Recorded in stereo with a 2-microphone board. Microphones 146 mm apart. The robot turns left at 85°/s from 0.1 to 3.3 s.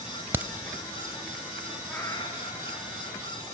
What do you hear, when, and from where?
0.3 s a crack: 15° right (ahead or behind), 0.6 m; by 0.5 s 5° right (ahead or behind), 0.6 m
1.9 s a cat meowing: 175° left, 2.5 m; by 3.2 s 60° left, 2.5 m